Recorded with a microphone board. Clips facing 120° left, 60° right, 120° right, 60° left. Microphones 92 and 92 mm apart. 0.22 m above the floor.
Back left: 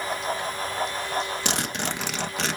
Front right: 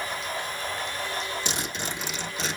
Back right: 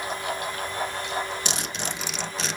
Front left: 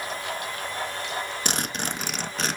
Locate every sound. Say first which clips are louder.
1.4 s a zipper: back left 4 dB, front left 2 dB; 100° left, 0.6 m